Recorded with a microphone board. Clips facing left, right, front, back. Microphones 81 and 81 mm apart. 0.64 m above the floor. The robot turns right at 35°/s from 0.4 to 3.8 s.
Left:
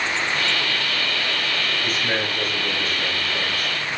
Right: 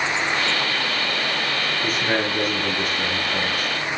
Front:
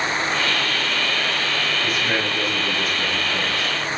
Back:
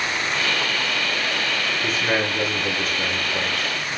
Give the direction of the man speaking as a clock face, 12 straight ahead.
4 o'clock.